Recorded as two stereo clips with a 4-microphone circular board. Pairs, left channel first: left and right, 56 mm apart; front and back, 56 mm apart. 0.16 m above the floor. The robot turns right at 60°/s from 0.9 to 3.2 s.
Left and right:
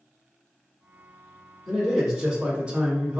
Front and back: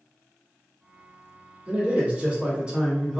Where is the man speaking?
170° left, 1.3 m; by 3.2 s 100° right, 1.3 m.